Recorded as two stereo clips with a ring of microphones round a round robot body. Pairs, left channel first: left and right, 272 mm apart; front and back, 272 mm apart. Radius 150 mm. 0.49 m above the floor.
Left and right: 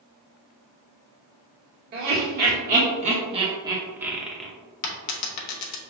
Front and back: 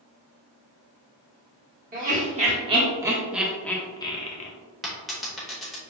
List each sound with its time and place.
1.9 s laughter: 130° right, 1.5 m; by 4.5 s 5° left, 1.1 m
4.8 s a dropped coin: 90° left, 0.8 m